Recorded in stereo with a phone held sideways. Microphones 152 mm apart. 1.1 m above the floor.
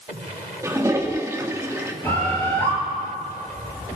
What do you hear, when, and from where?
0.6 s a toilet flushing: 20° right (ahead or behind), 1.3 m
2.0 s a bird: 15° left (ahead or behind), 4.5 m